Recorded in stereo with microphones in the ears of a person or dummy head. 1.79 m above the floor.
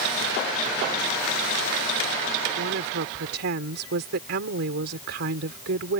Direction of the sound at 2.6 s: 65° right (ahead or behind).